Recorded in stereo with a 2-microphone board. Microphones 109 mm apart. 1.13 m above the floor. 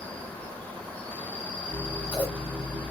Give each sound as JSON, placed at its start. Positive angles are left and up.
{"t": 0.0, "sound": "an insect", "side_deg": 15, "distance_m": 0.9}
{"t": 1.7, "sound": "scissors", "side_deg": 50, "distance_m": 1.9}